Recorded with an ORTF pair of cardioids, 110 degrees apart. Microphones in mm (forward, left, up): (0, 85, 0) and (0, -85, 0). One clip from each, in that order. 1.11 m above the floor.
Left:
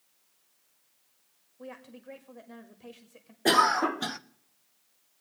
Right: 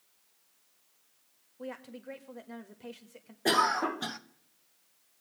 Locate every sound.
1.6 s a woman speaking: 15° right, 1.4 m
3.5 s a cough: 20° left, 0.5 m